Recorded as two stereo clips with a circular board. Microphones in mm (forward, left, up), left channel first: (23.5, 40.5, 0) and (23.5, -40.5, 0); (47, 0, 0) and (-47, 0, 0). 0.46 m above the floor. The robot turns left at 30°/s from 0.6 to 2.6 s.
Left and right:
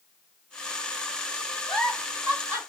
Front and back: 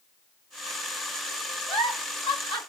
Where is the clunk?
I don't hear a clunk.